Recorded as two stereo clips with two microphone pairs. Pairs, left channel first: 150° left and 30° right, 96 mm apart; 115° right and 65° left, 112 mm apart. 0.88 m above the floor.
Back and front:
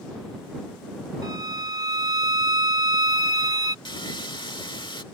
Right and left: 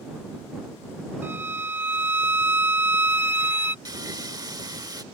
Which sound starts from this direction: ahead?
A violin, at 1.2 s.